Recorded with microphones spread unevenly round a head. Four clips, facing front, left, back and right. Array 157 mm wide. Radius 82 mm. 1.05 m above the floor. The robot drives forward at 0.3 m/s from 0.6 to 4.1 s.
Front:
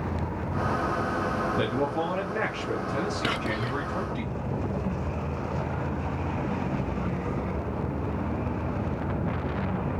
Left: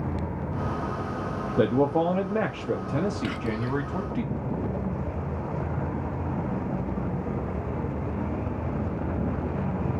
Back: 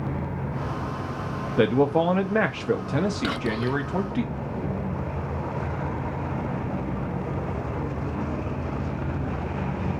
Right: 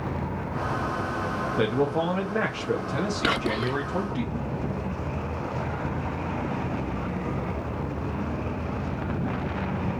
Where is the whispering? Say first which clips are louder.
Right 4 dB, back 3 dB; 85° right, 0.5 m; by 3.8 s 105° right, 0.6 m.